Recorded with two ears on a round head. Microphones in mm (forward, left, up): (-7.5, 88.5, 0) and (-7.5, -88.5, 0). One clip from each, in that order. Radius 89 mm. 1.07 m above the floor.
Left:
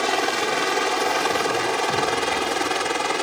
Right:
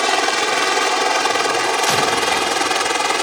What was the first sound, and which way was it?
A helicopter, 30° right (ahead or behind).